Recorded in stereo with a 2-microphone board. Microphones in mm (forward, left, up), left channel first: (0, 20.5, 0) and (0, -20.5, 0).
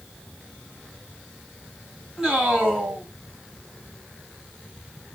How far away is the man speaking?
About 2 m.